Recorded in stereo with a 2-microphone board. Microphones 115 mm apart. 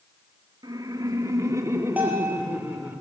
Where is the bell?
15° right (ahead or behind), 5 m.